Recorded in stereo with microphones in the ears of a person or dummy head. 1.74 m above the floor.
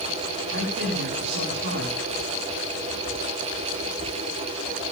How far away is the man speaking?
About 6 m.